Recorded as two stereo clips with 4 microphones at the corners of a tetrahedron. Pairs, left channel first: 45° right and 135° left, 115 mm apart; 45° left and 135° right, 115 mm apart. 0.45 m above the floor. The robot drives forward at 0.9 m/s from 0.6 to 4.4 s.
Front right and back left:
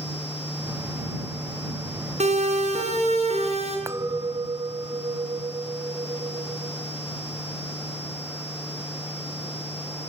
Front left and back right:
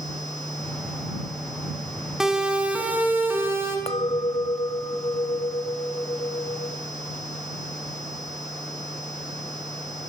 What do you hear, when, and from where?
2.2 s a siren: 140° left, 5.5 m; by 3.8 s 160° left, 7.5 m
3.9 s a clink: 70° left, 1.3 m; by 6.8 s 95° left, 1.2 m